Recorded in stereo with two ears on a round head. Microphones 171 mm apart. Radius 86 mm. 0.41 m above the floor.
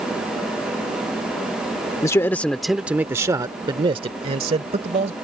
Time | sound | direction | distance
2.0 | a man speaking | 15° left (ahead or behind) | ?